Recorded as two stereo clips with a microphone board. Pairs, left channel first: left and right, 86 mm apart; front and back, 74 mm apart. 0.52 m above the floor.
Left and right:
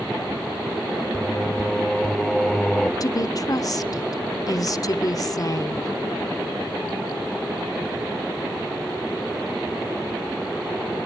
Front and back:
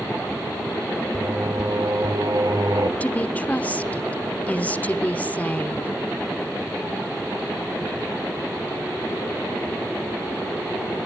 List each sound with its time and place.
1.1 s singing: 170° left, 1.0 m
3.0 s a woman speaking: 65° left, 1.0 m